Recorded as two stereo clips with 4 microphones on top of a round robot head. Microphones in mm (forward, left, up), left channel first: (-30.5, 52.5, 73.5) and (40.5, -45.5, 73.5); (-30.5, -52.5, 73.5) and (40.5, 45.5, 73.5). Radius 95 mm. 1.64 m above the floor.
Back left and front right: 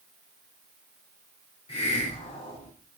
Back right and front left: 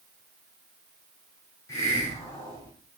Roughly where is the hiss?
Behind.